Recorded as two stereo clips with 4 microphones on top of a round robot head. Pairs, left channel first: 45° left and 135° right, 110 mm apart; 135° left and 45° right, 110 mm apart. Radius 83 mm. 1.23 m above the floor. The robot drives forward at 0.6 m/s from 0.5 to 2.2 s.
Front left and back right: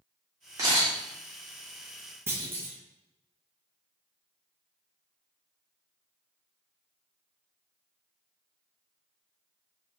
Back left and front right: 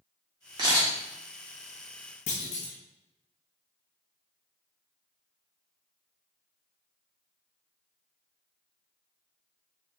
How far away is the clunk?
About 0.8 m.